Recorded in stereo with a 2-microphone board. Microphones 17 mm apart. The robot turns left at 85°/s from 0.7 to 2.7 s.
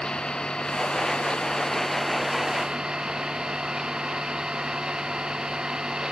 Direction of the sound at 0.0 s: 125° left.